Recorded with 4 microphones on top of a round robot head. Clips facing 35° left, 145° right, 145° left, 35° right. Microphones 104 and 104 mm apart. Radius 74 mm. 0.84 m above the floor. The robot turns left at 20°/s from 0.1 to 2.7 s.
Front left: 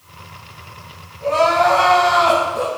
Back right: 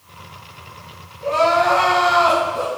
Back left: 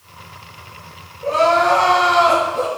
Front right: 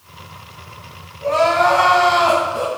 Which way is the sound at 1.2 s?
15° right.